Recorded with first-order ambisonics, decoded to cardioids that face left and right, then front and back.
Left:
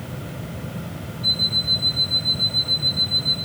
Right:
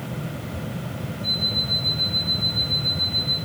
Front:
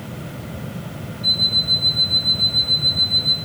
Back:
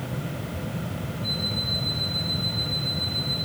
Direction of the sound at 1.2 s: 40° left.